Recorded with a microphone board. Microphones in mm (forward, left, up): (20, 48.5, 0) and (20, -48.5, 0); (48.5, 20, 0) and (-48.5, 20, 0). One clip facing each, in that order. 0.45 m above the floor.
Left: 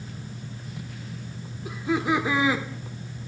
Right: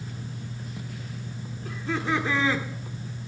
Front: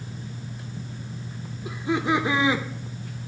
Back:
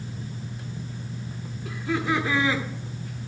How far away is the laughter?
About 1.0 m.